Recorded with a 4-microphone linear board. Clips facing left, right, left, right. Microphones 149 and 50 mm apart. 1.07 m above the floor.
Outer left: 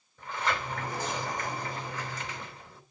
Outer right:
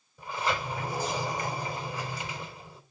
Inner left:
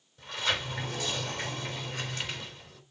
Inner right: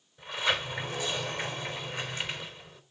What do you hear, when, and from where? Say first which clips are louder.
0.2 s a sliding door: outer right 1 dB, inner right 2 dB; 10° right (ahead or behind), 3.5 m